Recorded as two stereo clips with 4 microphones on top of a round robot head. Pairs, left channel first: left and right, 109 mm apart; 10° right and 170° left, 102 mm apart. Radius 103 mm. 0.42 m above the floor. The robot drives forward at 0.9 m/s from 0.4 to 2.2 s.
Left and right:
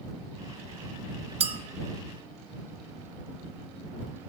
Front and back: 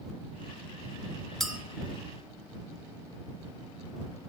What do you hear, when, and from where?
1.4 s a clink: 95° right, 0.7 m; by 1.6 s 110° right, 0.7 m